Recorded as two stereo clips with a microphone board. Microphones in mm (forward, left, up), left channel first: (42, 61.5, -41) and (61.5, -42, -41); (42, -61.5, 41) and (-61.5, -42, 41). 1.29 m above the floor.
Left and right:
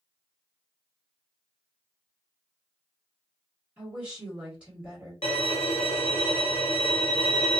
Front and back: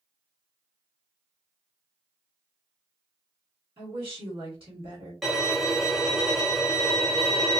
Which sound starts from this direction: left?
A violin, at 5.2 s.